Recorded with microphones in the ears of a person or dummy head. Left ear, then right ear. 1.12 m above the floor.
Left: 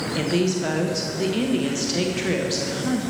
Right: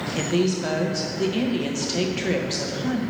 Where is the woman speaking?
5° right (ahead or behind), 0.8 m.